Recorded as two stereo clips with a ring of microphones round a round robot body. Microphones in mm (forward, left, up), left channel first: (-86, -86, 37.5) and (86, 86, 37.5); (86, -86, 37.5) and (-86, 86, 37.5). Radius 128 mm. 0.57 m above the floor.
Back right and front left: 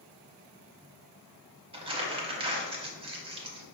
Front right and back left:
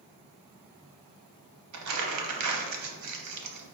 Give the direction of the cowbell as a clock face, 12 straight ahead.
I don't hear a cowbell.